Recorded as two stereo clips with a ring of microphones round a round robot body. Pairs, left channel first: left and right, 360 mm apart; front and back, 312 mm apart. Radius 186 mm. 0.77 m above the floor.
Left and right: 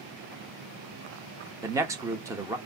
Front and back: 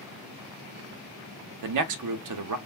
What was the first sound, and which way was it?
A man speaking, 170° right.